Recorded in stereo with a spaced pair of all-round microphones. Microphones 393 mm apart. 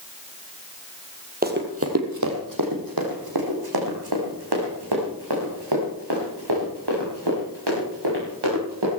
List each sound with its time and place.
1.4 s running footsteps: 20° right (ahead or behind), 2 m; by 8.9 s 85° right, 11.5 m